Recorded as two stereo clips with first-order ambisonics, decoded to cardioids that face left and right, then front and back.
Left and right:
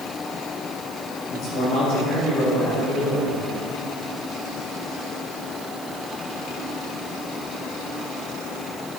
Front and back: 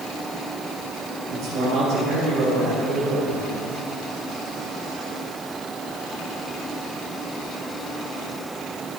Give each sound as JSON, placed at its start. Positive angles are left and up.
{"t": 1.3, "sound": "a man speaking", "azimuth_deg": 135, "distance_m": 4.5}